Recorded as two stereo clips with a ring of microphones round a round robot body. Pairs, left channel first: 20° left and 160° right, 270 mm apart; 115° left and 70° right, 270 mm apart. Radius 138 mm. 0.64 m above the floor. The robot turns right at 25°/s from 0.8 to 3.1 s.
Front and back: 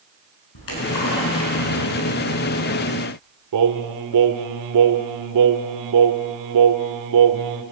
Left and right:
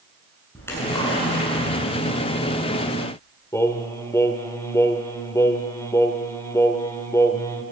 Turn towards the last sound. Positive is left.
turn(degrees=-170)